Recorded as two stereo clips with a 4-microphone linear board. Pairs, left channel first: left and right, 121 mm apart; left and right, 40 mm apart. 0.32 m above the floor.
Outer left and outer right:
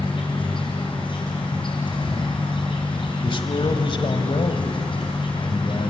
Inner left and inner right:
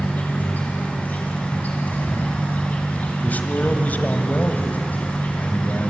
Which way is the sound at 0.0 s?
45° left (ahead or behind).